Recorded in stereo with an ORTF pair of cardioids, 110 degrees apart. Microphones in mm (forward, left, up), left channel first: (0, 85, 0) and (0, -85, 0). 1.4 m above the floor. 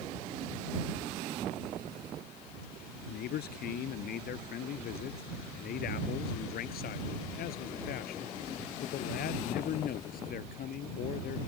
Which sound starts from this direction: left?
A man speaking, at 3.1 s.